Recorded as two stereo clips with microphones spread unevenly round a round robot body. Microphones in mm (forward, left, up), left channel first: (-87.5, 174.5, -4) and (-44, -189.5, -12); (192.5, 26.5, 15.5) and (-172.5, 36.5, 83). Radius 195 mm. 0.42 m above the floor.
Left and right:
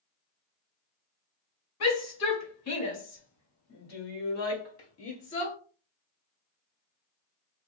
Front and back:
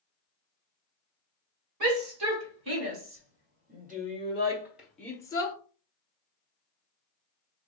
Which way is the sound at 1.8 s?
135° left.